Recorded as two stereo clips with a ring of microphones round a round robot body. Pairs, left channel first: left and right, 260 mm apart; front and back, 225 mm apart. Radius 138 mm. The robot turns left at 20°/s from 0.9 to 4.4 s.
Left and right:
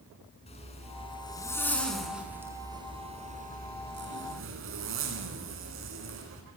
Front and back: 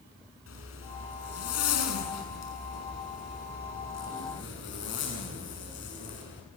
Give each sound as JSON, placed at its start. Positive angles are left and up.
{"t": 0.5, "sound": "a zipper", "azimuth_deg": 20, "distance_m": 7.0}